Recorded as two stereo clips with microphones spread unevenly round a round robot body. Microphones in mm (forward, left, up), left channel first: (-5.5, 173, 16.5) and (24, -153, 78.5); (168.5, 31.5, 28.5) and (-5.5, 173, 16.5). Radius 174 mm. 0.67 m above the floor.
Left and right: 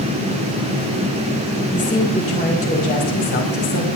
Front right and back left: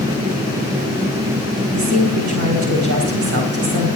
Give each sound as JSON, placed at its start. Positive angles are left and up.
{"t": 1.7, "sound": "a woman speaking", "azimuth_deg": 170, "distance_m": 4.0}